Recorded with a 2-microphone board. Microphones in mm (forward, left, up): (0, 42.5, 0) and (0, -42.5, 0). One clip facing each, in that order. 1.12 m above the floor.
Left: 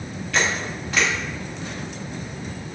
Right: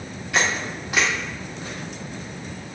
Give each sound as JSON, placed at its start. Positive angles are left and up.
{"t": 0.3, "sound": "a camera shutter", "side_deg": -15, "distance_m": 1.9}